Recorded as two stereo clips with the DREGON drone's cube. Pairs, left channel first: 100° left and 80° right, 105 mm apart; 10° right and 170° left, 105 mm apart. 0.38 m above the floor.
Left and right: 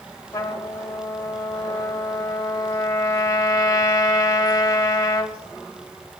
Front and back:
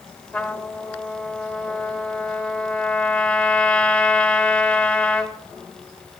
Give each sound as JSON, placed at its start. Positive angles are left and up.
{"t": 0.3, "sound": "a trumpet", "azimuth_deg": 60, "distance_m": 1.4}